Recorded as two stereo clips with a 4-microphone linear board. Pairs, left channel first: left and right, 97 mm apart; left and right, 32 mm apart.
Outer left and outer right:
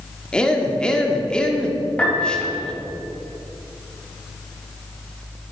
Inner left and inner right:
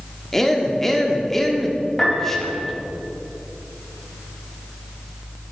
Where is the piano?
15° left (ahead or behind), 2.5 m.